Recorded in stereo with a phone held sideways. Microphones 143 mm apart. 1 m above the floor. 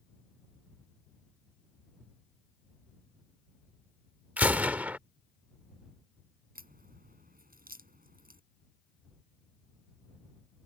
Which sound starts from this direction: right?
A crack, at 6.5 s.